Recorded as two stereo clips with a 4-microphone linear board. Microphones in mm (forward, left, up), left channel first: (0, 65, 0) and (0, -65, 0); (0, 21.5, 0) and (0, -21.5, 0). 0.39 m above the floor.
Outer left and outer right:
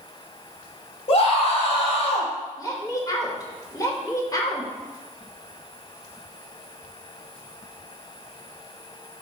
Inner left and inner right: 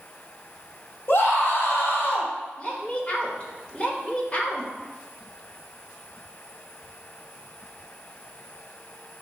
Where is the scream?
55° left (ahead or behind), 1.6 m.